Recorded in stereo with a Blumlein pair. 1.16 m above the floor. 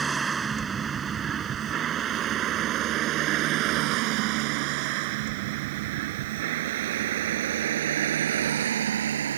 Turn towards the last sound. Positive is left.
turn(degrees=-65)